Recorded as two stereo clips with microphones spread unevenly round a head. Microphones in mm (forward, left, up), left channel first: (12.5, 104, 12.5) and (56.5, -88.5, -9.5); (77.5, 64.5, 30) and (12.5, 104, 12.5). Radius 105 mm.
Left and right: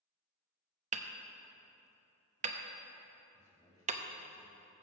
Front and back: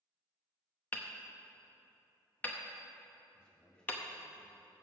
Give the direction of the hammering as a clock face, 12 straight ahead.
2 o'clock.